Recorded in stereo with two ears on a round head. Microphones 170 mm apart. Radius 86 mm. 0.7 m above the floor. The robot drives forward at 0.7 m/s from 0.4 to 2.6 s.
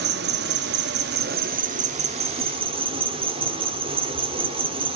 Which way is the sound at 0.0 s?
55° right (ahead or behind).